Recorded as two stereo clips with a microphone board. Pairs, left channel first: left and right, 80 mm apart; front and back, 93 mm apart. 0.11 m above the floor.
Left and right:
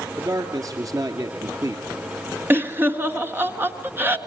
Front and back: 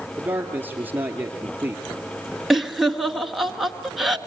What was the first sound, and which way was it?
A man speaking, 115° right.